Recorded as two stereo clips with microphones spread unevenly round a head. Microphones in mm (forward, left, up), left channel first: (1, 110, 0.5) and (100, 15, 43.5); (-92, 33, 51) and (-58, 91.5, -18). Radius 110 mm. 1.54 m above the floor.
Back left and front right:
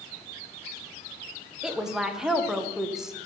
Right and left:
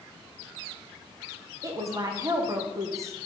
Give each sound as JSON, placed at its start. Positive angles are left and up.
{"t": 1.6, "sound": "a woman speaking", "azimuth_deg": 45, "distance_m": 1.0}